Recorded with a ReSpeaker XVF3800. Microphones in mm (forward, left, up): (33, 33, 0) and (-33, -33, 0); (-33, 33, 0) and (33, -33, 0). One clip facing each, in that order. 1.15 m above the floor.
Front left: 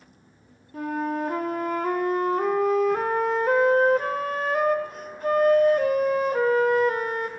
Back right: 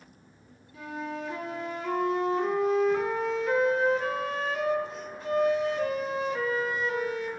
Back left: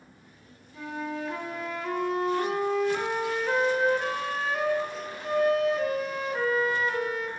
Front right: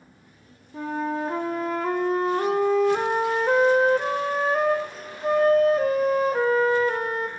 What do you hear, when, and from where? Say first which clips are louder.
0.7 s a flute: front left 9 dB, front right 7 dB; 5° left, 0.6 m